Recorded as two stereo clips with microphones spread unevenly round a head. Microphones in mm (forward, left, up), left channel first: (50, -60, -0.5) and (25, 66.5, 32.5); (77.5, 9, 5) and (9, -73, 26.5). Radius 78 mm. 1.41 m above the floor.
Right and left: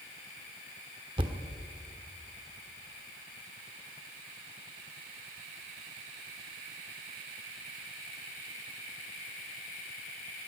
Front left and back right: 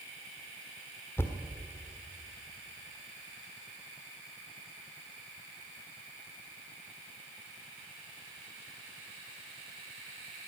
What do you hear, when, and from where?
1.2 s a thud: 135° left, 1.4 m